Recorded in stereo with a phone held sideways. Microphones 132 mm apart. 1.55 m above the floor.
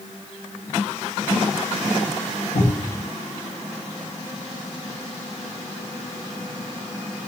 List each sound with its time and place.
2.5 s a cupboard door: 70° left (ahead or behind), 1.0 m